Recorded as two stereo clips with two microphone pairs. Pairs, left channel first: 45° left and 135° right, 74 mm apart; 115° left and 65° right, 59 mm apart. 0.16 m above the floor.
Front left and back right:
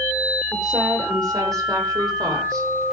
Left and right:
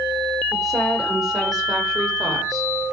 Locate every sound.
0.5 s a woman speaking: 150° right, 8.5 m